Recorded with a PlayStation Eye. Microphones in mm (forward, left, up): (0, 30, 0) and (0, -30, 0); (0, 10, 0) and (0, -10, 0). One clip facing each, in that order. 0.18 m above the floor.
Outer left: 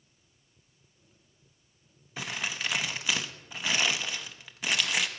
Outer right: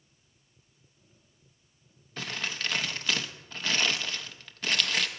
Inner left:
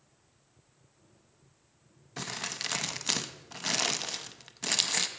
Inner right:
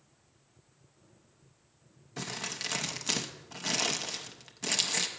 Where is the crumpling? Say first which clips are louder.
Even, inner left 1 dB; 10° left (ahead or behind), 0.5 m.